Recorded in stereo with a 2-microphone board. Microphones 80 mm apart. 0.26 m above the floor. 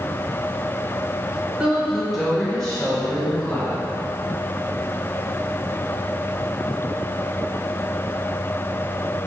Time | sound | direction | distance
1.6 | a woman speaking | 10° right (ahead or behind) | 1.3 m